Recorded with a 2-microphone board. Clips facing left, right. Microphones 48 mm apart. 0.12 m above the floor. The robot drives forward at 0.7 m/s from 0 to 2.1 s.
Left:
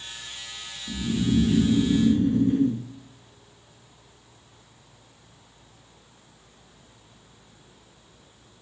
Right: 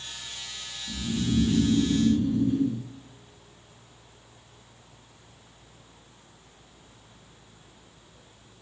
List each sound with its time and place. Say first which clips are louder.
0.9 s snoring: left 4 dB; 45° left (ahead or behind), 1.7 m; by 2.9 s 40° left (ahead or behind), 1.8 m